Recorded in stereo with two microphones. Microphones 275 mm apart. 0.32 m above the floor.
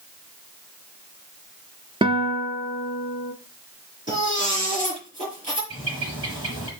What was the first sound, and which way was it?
A guitar, 20° right (ahead or behind).